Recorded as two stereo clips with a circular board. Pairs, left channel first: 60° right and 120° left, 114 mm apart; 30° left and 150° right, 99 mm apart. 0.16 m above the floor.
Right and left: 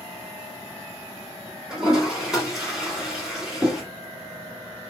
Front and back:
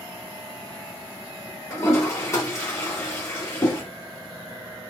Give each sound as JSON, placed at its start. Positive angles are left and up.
{"t": 1.7, "sound": "a toilet flushing", "azimuth_deg": 40, "distance_m": 1.8}